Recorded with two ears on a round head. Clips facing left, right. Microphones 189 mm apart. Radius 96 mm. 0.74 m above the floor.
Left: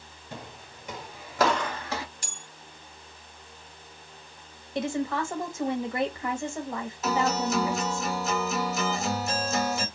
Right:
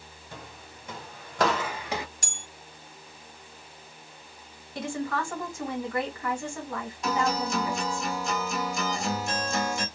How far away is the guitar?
About 1.0 m.